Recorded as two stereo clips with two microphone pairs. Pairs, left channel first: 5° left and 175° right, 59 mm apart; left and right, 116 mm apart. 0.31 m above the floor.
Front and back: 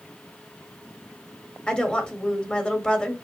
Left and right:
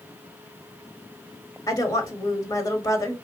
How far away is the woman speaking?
About 1.4 m.